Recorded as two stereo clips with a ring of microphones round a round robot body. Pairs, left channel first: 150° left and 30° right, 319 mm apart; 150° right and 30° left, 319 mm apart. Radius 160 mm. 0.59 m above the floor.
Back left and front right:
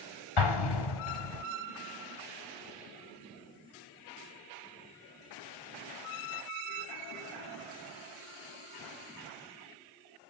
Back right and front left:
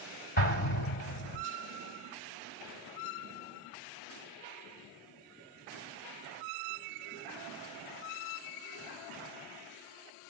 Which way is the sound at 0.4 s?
145° left.